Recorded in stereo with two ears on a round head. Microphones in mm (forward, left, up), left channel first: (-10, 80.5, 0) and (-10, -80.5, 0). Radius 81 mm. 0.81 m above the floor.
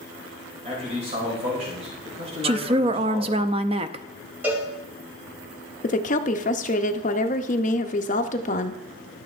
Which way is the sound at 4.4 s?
10° right (ahead or behind).